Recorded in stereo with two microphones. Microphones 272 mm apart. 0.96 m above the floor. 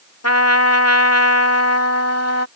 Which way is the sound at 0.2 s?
65° left (ahead or behind).